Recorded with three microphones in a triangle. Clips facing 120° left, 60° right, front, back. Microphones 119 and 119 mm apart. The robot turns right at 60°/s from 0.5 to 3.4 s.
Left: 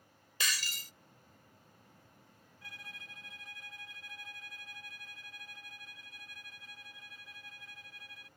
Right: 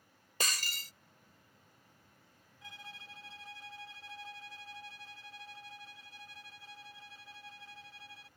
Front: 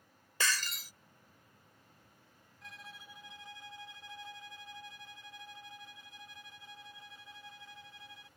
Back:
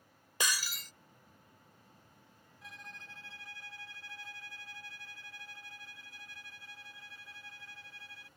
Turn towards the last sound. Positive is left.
turn(degrees=-50)